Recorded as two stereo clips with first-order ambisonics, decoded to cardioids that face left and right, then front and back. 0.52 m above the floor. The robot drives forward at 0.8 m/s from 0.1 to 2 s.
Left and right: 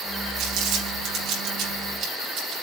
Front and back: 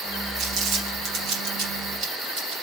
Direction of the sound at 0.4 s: 130° right.